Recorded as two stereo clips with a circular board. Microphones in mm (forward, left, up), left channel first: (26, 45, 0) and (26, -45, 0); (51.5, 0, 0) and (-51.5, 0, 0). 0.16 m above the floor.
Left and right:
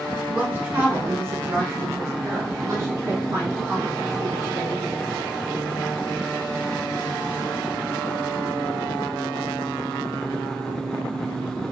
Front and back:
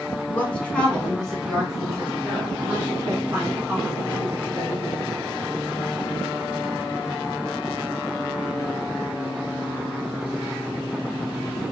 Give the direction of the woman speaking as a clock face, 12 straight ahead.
1 o'clock.